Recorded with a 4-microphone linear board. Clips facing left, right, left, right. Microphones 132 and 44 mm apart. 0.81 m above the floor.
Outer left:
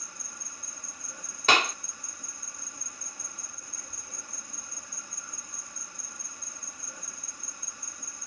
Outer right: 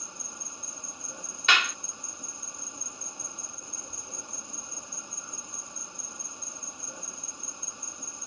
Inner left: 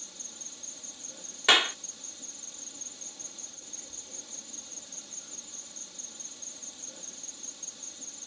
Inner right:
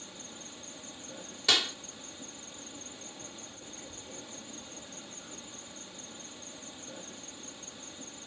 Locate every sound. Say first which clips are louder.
0.0 s an insect: outer right 3 dB, inner right 4 dB; 20° right (ahead or behind)
1.5 s a clap: outer left 3 dB, inner left 6 dB; 40° left (ahead or behind)